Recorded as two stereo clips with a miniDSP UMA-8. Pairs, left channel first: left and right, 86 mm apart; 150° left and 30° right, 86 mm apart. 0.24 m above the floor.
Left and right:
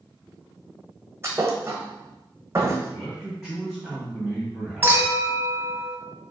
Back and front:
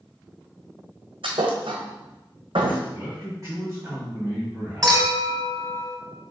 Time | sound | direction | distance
1.2 | a thud | 30° right | 0.9 m
2.9 | a man speaking | 5° left | 1.8 m
4.8 | a clink | 40° right | 1.0 m